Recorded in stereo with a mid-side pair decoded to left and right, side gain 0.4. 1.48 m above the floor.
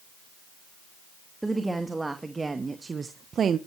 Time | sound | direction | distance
1.4 | a woman speaking | 15° right | 2.5 m